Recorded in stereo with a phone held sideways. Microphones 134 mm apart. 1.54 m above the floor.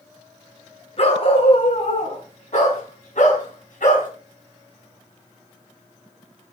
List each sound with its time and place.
1.0 s a dog barking: 50° left (ahead or behind), 6 m; by 4.1 s 75° left (ahead or behind), 4.5 m